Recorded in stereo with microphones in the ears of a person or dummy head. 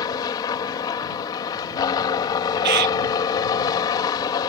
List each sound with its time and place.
0.0 s a helicopter: 20° left (ahead or behind)
2.6 s a bird: 70° right (ahead or behind)